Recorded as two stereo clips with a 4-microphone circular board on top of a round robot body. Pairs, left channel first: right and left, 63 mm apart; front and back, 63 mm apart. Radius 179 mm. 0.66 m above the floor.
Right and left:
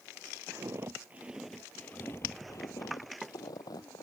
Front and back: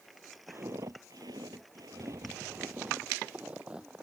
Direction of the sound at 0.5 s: 130° left.